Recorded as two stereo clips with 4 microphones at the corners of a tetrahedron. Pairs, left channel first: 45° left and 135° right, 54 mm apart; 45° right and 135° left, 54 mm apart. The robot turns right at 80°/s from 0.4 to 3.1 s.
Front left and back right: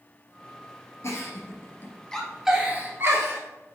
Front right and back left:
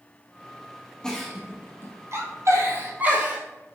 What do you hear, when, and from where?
1.0 s a giggle: 30° left, 1.7 m; by 3.4 s 165° right, 1.7 m